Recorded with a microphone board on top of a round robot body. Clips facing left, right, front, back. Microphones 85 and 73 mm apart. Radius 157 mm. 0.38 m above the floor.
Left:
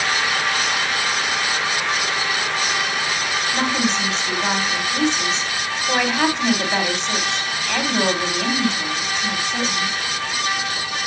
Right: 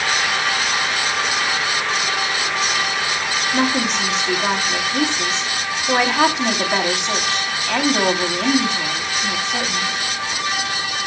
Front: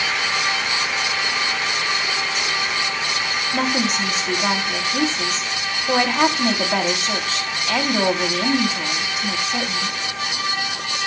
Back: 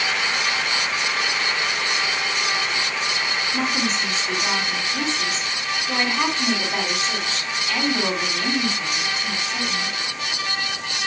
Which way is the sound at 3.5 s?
10° right.